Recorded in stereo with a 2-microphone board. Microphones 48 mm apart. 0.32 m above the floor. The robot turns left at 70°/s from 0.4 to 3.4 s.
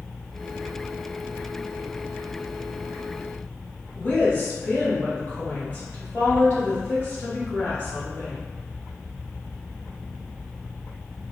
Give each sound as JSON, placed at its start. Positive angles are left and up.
{"t": 4.0, "sound": "a woman speaking", "side_deg": 45, "distance_m": 1.7}